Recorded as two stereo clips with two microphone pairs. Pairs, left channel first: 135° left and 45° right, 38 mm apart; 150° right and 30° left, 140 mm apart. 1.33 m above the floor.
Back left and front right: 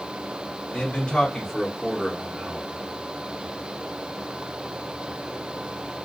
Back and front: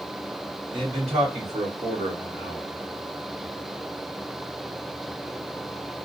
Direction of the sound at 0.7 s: 80° left.